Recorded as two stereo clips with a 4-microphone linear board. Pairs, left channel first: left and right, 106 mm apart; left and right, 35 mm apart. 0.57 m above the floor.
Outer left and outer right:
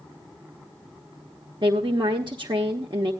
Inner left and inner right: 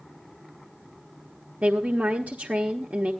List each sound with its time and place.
1.6 s a woman speaking: 50° right (ahead or behind), 1.2 m